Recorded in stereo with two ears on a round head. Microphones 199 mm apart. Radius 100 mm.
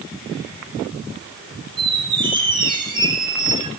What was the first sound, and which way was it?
A squeak, 20° right (ahead or behind).